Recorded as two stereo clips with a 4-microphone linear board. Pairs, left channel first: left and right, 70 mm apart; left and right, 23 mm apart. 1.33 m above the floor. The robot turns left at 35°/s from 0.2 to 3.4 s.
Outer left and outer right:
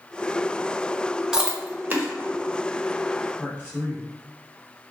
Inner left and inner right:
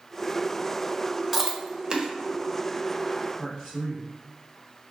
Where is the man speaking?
25° left (ahead or behind), 1.5 m.